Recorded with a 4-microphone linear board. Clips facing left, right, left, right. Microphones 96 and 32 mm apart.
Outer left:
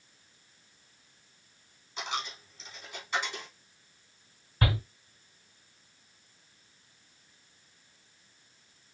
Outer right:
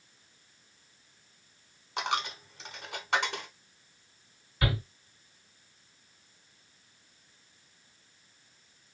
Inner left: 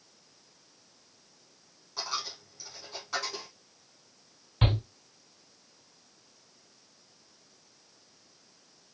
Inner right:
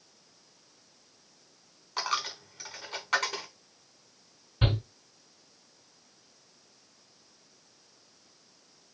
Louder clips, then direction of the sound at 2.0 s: Outer right 5 dB, inner right 4 dB; 65° right (ahead or behind).